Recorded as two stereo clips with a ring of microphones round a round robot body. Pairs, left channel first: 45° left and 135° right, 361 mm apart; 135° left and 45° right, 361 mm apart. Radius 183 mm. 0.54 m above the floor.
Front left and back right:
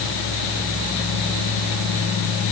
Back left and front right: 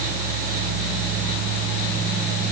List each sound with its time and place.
Only background noise.